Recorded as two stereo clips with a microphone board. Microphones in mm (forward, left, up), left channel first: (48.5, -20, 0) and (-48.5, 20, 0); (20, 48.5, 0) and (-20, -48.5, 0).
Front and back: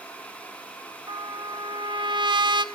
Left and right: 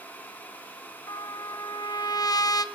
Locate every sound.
1.1 s a trumpet: 115° left, 0.9 m